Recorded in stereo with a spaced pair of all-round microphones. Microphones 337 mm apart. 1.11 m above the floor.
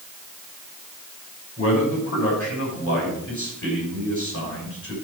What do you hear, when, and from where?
1.6 s a man speaking: 40° left (ahead or behind), 6 m